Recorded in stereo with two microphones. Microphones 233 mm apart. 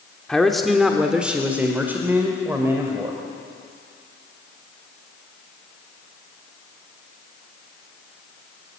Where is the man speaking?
5° left (ahead or behind), 1.2 m; by 3.2 s 10° right (ahead or behind), 2.5 m.